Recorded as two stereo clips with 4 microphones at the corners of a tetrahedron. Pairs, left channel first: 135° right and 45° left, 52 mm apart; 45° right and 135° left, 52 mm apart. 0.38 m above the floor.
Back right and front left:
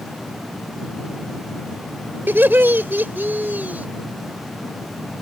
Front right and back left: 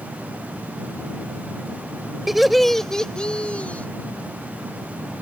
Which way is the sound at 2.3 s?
55° left.